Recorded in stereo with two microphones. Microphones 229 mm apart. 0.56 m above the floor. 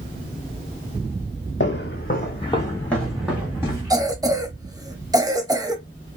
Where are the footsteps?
55° left (ahead or behind), 1.2 m; by 3.9 s 15° right (ahead or behind), 2 m.